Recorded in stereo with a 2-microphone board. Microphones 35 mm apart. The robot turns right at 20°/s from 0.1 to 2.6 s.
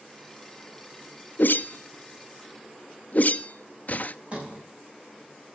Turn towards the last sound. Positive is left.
turn(degrees=-35)  # may be behind; listen again after turning